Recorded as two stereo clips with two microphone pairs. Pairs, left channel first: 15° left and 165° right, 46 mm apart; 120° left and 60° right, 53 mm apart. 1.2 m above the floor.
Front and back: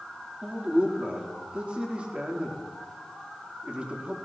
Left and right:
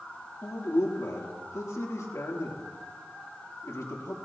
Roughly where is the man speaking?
Behind left.